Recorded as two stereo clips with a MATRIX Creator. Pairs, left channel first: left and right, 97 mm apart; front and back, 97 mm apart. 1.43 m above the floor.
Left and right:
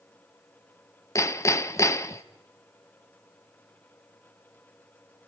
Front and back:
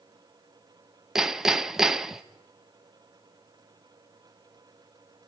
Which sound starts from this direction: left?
Hammering, at 1.1 s.